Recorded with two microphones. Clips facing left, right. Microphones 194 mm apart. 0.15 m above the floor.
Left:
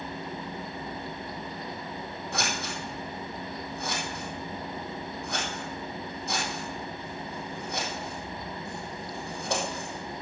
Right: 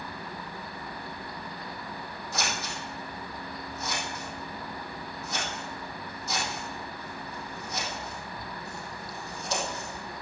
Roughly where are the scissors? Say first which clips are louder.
Left 1 dB; left.